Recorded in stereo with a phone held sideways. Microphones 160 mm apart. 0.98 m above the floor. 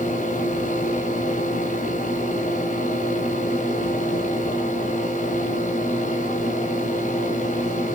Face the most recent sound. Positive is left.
turn(degrees=50)  # may be behind; listen again after turning